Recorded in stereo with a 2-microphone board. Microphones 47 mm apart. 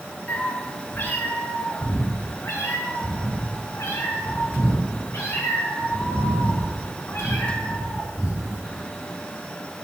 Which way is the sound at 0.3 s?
35° left (ahead or behind).